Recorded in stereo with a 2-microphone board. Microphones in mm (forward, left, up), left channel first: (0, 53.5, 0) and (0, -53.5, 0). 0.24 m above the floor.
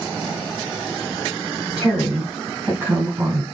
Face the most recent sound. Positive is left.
turn(degrees=-25)  # may be behind; listen again after turning